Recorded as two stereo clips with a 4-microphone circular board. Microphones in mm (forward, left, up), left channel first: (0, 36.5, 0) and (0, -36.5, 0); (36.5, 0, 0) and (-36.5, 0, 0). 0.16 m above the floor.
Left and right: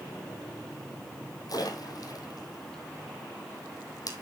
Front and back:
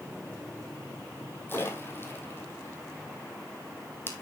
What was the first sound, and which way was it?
A splash, 60° left.